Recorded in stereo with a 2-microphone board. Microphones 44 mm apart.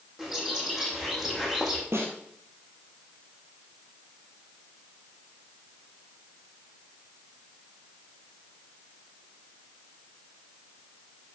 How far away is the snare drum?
About 3 m.